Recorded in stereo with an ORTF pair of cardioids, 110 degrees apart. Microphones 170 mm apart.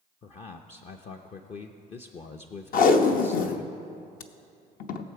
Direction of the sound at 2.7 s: 55° left.